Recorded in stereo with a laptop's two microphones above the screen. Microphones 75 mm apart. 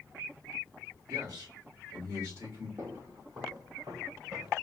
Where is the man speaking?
60° right (ahead or behind), 3 m; by 2.7 s 40° right (ahead or behind), 3 m.